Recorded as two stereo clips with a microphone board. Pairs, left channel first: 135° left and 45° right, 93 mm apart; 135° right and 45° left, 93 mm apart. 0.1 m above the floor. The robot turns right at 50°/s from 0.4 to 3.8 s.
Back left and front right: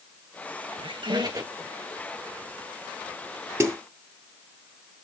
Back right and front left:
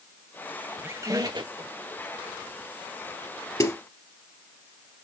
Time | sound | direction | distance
0.8 | a squeak | 25° right | 1.0 m
3.6 | a snare drum | 95° right | 2 m